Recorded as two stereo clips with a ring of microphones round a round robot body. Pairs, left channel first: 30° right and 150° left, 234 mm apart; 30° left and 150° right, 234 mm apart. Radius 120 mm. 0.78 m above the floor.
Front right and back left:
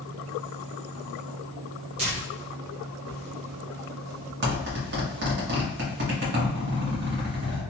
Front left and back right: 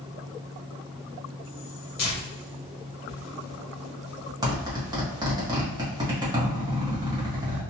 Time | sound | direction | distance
2.0 | tearing paper | 85° left | 1.5 m
4.4 | a zipper | 145° left | 1.2 m